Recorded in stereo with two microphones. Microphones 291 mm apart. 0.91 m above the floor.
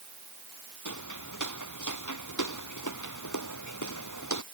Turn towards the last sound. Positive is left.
turn(degrees=85)